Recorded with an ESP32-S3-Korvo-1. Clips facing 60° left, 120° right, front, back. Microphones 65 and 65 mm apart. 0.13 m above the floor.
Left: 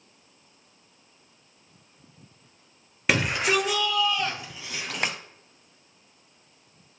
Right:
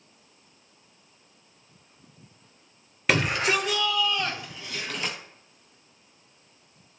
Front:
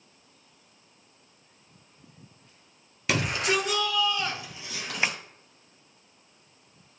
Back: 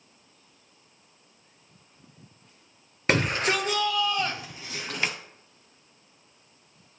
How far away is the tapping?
About 0.7 m.